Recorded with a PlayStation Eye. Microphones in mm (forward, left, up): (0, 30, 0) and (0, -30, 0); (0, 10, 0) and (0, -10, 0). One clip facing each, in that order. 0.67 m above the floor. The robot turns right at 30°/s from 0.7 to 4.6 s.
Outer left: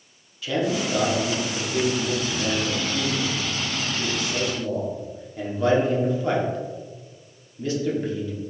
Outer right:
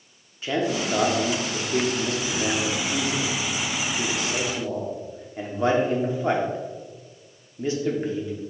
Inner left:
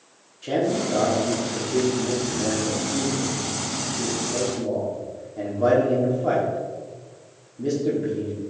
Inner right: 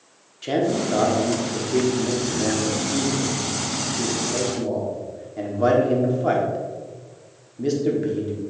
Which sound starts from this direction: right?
A man speaking, at 0.4 s.